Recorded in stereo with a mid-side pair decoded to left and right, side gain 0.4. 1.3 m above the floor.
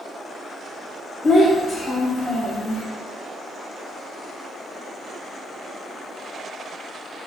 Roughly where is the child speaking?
Ahead left.